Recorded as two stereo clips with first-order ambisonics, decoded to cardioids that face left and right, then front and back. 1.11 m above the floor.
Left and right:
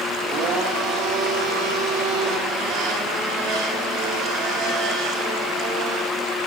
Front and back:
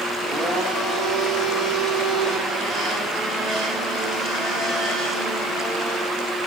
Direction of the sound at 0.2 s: 115° right.